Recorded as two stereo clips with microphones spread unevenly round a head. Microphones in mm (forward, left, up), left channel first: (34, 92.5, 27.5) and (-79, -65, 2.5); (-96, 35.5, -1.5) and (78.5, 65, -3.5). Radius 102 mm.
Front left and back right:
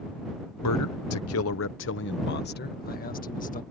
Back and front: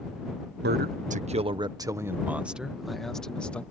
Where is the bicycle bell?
No bicycle bell in this recording.